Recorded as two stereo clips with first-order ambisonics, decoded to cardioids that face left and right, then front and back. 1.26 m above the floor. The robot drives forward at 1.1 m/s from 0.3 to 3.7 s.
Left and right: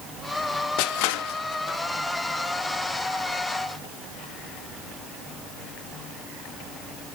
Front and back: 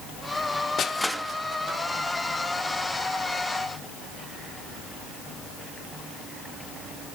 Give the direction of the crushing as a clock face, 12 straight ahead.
10 o'clock.